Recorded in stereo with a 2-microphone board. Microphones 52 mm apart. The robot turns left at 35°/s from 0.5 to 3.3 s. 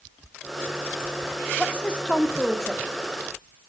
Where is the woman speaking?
20° left (ahead or behind), 0.9 m; by 2.8 s 5° left (ahead or behind), 0.9 m.